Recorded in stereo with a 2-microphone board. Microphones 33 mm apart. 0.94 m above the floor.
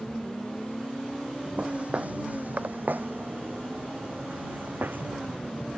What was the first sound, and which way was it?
Footsteps, 40° right (ahead or behind).